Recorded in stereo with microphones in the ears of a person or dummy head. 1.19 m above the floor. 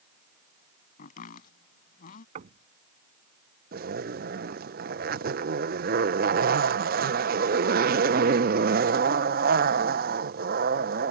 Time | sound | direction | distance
1.0 | chopping | 55° left (ahead or behind) | ?
2.4 | knocking | 45° right (ahead or behind) | ?
3.7 | a zipper | 50° right (ahead or behind) | ?